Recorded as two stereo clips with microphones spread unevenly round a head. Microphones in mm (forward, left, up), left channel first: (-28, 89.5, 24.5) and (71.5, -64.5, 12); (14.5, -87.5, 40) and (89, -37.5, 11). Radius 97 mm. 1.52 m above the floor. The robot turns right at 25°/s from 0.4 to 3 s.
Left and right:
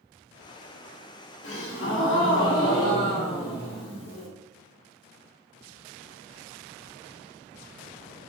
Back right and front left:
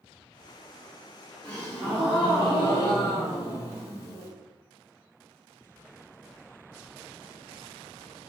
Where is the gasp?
110° left, 1.7 m; by 4.3 s 145° left, 1.7 m.